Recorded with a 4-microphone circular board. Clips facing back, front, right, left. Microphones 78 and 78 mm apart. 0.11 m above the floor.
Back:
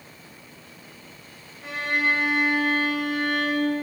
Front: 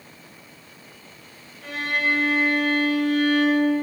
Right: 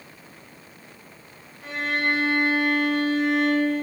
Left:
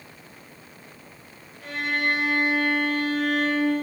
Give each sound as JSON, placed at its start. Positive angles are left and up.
{"t": 1.6, "sound": "a violin", "azimuth_deg": -130, "distance_m": 1.5}